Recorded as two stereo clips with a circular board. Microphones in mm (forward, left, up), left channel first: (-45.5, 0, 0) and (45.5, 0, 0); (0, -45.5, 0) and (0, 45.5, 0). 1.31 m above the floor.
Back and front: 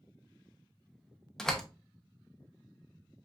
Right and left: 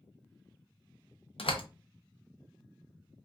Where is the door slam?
95° right, 0.7 m.